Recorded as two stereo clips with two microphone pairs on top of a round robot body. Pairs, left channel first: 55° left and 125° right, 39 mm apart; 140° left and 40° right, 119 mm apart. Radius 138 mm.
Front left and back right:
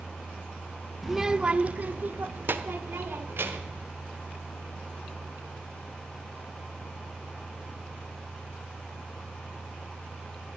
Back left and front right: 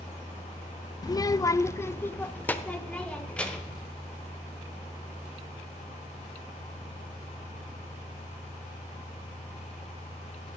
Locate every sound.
1.0 s a child speaking: 145° left, 0.5 m; by 3.8 s 140° right, 1.8 m